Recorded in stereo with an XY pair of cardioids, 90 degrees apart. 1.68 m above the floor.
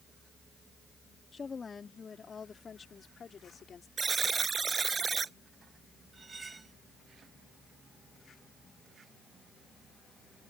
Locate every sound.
1.3 s a woman speaking: 40° left; by 3.9 s 50° left
4.0 s a buzzer: 40° right
6.1 s cutlery clinking: 30° right